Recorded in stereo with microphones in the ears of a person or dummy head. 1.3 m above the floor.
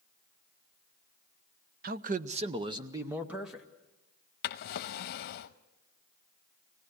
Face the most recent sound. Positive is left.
turn(degrees=60)  # may be behind; listen again after turning